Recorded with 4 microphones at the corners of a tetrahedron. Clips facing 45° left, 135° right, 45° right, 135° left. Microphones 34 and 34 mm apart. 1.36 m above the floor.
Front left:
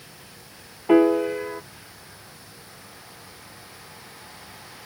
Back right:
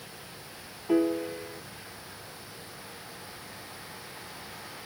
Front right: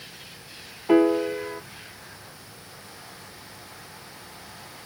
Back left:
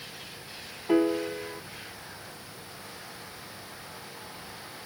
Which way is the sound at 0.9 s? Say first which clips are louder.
Front left 9 dB, front right 6 dB; 15° left.